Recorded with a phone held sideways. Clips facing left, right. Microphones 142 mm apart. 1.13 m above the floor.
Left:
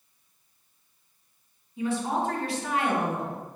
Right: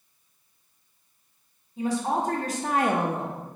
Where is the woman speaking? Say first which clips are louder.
Right 1 dB; 40° right (ahead or behind), 1.1 m; by 3.4 s 20° right (ahead or behind), 0.5 m.